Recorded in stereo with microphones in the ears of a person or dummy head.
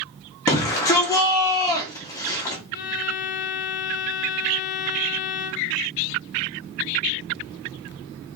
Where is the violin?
50° left (ahead or behind), 0.8 m.